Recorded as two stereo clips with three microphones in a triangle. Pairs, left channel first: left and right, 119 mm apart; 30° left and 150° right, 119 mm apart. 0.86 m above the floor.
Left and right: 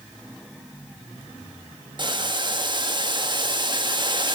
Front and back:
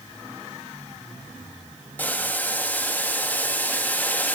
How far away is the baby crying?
No baby crying in this recording.